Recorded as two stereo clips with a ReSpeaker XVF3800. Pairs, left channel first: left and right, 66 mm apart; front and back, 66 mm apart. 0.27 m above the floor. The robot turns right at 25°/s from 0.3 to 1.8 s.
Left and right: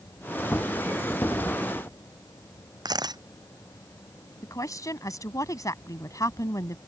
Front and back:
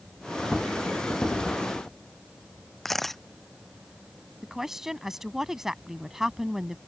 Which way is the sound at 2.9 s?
85° right.